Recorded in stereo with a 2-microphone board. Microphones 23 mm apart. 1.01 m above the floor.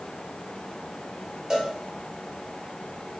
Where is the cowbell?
30° right (ahead or behind), 2 m.